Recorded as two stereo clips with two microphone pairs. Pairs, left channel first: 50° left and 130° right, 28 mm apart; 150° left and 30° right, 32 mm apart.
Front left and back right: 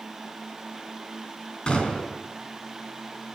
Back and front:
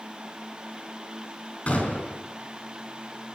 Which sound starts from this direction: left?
A gunshot, at 1.7 s.